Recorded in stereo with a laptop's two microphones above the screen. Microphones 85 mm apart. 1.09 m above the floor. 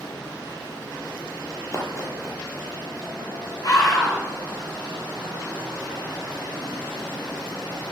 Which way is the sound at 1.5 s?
35° left (ahead or behind).